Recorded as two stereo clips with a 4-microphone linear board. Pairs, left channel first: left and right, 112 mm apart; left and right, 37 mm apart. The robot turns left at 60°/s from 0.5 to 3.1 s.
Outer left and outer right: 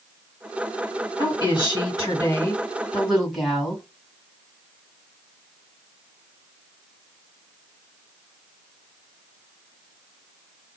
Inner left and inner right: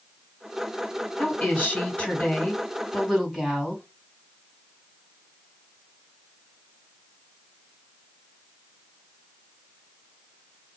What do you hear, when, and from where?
1.2 s a woman speaking: 115° left, 2 m; by 3.8 s straight ahead, 2 m